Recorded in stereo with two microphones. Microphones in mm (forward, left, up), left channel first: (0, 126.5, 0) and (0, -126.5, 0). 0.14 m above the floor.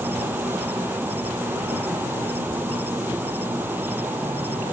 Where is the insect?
5° right (ahead or behind).